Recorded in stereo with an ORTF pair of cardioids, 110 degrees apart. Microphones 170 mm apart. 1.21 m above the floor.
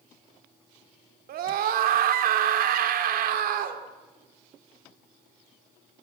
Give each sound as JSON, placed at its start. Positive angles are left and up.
{"t": 1.3, "sound": "a scream", "azimuth_deg": -65, "distance_m": 3.0}